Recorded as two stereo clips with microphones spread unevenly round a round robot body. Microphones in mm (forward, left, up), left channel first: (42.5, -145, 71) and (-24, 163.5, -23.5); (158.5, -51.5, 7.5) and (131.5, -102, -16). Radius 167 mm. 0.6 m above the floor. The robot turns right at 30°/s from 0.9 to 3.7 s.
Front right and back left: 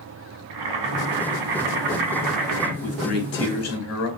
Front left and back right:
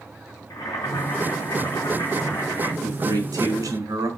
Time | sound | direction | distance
0.5 | boiling | 95° left | 3 m
2.8 | a man speaking | 150° right | 3.5 m